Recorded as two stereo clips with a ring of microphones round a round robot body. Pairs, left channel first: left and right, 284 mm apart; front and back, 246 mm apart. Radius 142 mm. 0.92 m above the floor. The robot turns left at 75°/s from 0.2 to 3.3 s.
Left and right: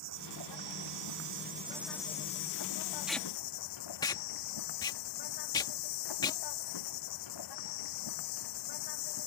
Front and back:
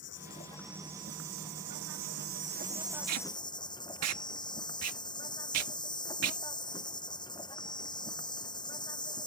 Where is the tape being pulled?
175° right; by 6.4 s 165° left.